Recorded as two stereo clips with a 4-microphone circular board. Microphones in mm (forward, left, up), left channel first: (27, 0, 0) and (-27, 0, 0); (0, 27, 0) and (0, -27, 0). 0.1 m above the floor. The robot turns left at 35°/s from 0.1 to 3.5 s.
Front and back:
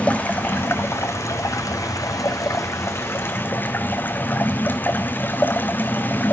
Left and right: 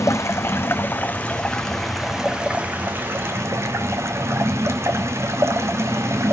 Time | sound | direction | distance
0.0 | running water | 65° left | 1.3 m